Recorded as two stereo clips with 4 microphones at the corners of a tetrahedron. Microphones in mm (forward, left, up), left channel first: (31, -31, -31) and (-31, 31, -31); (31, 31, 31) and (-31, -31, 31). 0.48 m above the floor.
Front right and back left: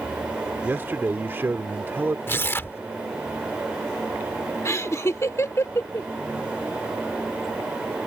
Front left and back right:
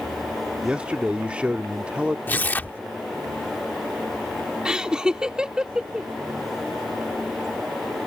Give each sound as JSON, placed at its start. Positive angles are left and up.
{"t": 0.6, "sound": "a man speaking", "azimuth_deg": 160}
{"t": 2.3, "sound": "tearing paper", "azimuth_deg": -5}
{"t": 4.7, "sound": "laughter", "azimuth_deg": -60}